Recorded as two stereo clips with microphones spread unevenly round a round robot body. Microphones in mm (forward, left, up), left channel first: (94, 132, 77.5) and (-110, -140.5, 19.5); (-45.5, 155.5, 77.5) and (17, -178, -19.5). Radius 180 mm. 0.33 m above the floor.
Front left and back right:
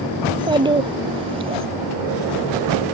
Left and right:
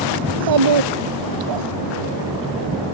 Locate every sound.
0.2 s a child speaking: 50° right